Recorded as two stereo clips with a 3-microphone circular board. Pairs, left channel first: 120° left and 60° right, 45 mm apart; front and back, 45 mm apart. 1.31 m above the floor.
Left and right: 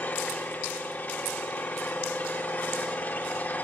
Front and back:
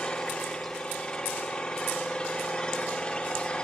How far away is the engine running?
About 2.5 m.